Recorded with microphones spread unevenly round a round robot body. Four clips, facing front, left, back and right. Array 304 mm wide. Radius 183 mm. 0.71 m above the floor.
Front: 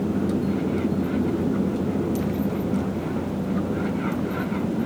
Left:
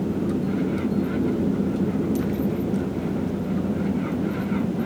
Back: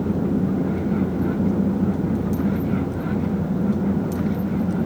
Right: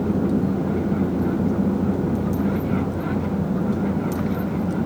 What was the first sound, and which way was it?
Only background noise.